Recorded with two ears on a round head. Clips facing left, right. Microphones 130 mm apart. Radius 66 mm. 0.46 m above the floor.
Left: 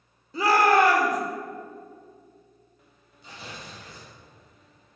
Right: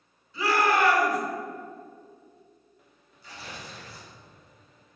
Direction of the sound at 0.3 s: 35° left (ahead or behind).